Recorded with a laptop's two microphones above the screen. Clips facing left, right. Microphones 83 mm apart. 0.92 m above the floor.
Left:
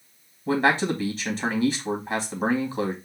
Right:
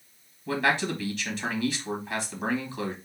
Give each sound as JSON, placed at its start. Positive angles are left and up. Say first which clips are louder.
{"t": 0.5, "sound": "a man speaking", "louder": "left 4 dB", "side_deg": 35, "distance_m": 1.8}